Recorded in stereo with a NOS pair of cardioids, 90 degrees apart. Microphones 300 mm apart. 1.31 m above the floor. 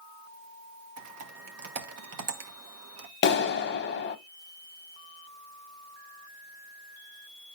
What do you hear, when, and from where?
1.0 s typing on a keyboard: 55° right, 1.5 m
3.2 s a clap: 40° left, 1.0 m